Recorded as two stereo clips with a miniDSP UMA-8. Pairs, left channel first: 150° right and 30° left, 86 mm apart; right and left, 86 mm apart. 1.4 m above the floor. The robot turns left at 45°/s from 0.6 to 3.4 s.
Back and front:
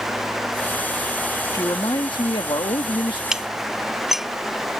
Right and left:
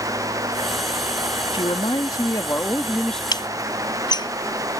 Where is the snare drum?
I don't hear a snare drum.